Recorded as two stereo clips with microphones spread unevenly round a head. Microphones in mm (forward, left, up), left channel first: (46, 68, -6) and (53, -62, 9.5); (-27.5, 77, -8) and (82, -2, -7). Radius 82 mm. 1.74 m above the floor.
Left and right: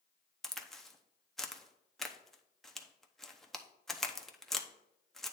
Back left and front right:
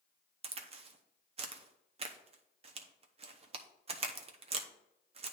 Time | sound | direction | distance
0.4 | a crack | straight ahead | 0.8 m